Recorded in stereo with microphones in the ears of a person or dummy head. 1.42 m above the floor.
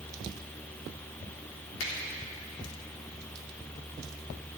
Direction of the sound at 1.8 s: 80° left.